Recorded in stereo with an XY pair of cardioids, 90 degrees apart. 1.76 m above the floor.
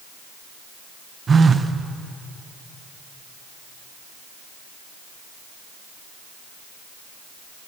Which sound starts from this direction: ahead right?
A phone buzzing, at 1.3 s.